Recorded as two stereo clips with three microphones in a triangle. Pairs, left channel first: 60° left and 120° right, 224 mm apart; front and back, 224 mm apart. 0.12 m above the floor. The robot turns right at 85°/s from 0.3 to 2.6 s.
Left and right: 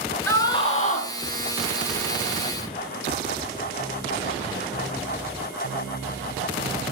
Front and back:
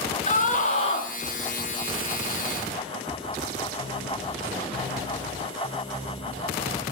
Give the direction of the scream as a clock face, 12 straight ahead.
12 o'clock.